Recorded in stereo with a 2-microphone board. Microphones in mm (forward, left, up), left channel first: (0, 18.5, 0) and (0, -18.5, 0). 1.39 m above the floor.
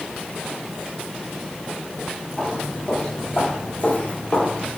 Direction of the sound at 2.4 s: 10° left (ahead or behind).